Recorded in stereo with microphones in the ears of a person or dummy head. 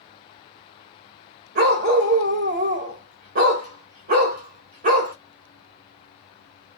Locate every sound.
1.6 s a dog barking: 55° right (ahead or behind), 1.8 m